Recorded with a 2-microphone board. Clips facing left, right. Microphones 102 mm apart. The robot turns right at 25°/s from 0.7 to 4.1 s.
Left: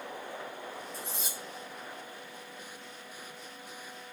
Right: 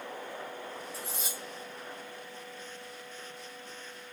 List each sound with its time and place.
0.9 s cutlery clinking: 5° right (ahead or behind), 1.5 m; by 1.4 s 5° left (ahead or behind), 1.5 m